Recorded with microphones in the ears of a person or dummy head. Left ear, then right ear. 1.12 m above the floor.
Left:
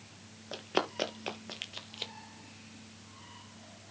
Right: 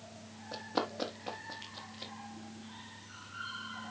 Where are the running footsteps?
35° left (ahead or behind), 1.8 m; by 2.1 s 55° left (ahead or behind), 2 m.